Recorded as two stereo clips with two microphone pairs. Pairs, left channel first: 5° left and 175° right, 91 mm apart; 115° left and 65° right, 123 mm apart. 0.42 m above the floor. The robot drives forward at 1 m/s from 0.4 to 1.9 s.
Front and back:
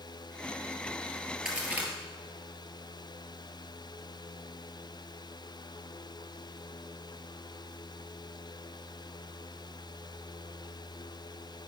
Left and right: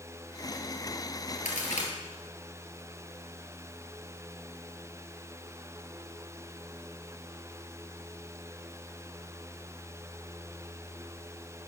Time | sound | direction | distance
1.4 | a crack | 105° left | 2 m